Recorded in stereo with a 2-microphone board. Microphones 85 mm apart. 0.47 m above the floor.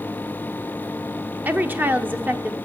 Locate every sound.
1.4 s a woman speaking: 20° right (ahead or behind), 0.8 m